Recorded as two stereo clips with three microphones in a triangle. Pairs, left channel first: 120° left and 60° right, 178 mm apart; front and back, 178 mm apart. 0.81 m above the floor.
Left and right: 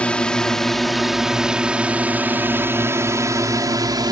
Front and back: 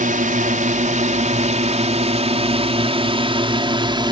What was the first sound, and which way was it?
A drone, 160° right.